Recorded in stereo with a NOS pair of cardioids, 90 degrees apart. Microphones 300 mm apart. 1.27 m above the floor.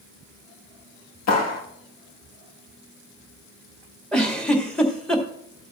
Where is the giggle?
5° left, 2 m.